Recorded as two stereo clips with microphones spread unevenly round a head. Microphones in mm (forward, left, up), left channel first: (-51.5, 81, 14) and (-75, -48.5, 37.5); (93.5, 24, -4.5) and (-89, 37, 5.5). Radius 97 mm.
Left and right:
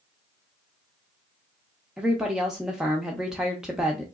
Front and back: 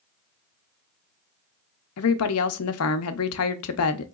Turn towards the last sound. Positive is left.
turn(degrees=-15)